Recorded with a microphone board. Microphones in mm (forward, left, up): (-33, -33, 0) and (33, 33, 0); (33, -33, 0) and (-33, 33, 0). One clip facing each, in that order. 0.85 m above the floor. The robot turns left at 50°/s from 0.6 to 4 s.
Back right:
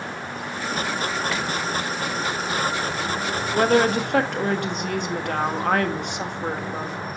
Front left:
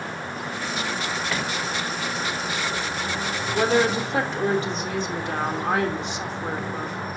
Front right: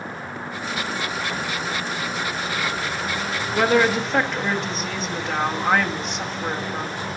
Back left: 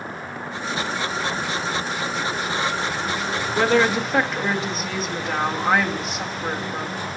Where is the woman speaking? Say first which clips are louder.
Back right 2 dB, even; 115° right, 1.3 m; by 7.0 s 135° right, 1.3 m.